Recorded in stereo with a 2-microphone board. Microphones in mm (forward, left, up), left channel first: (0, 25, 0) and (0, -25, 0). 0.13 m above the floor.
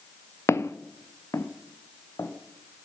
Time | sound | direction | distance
0.5 | footsteps | 75° left (ahead or behind) | 0.9 m